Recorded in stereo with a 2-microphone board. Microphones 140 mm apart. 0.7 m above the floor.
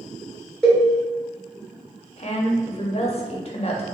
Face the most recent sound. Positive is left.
turn(degrees=45)  # may be behind; listen again after turning